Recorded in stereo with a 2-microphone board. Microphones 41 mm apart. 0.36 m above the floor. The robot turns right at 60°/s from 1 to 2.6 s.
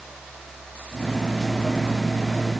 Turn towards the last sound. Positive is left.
No sound to turn to.